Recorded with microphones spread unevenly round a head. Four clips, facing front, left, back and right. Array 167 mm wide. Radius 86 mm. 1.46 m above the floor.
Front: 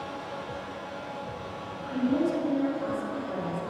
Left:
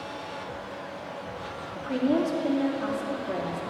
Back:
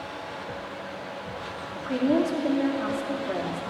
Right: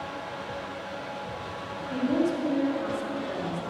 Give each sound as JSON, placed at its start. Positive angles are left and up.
{"t": 1.8, "sound": "a woman speaking", "azimuth_deg": 155, "distance_m": 3.0}